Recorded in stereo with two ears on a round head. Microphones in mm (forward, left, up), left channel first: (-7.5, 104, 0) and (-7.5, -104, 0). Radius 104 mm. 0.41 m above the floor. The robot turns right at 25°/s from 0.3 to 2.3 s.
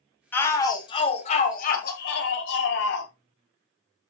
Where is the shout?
10° left, 2 m; by 3.1 s 60° left, 2 m.